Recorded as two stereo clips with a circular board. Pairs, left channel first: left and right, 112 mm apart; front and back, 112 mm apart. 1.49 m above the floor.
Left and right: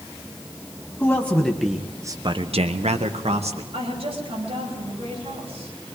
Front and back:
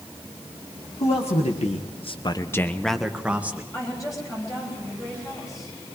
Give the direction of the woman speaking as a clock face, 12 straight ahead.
2 o'clock.